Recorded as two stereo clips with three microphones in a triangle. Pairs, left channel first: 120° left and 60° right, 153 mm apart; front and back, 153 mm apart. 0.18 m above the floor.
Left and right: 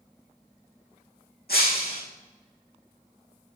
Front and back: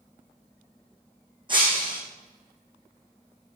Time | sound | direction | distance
1.5 | breaking glass | 120° left | 5.5 m